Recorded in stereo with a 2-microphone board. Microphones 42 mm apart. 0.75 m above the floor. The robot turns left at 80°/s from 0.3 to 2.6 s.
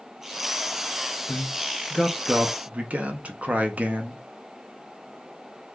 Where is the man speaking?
50° left, 0.7 m; by 4.2 s 55° right, 0.7 m.